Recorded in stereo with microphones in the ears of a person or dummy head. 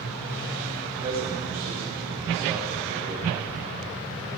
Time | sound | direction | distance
0.8 | a man speaking | 40° right (ahead or behind) | 5 m